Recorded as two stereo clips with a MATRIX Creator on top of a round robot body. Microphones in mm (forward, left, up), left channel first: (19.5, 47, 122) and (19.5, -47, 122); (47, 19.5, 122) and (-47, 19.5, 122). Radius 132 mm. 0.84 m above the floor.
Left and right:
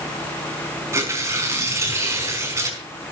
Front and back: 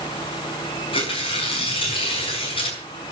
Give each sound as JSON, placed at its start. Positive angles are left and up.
{"t": 0.9, "sound": "tearing paper", "azimuth_deg": -30, "distance_m": 5.0}